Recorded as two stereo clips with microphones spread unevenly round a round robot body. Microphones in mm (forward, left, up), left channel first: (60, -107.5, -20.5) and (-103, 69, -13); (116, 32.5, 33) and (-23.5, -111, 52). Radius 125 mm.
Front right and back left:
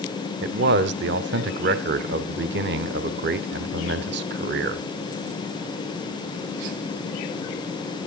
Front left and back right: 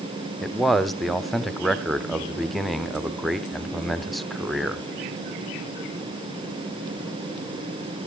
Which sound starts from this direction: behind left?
A man speaking, at 0.4 s.